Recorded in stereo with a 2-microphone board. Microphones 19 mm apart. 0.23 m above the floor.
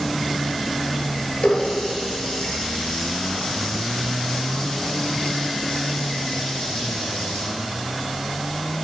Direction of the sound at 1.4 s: 70° left (ahead or behind).